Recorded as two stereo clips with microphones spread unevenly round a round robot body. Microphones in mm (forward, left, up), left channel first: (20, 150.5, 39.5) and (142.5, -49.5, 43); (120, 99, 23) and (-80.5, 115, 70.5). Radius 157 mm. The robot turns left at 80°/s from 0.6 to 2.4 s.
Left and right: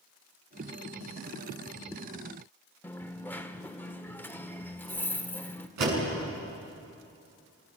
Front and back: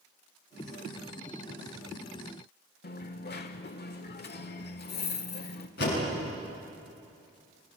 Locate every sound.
2.8 s a dropped coin: 40° left, 1.1 m
5.8 s a door slam: 60° right, 7 m